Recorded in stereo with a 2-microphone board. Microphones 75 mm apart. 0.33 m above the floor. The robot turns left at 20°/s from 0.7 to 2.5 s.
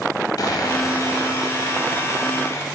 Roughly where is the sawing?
Left.